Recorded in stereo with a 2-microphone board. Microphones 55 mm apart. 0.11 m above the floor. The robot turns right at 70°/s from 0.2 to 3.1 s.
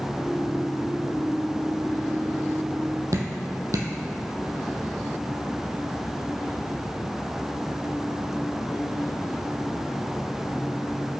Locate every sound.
3.1 s dripping: 70° right (ahead or behind), 1.2 m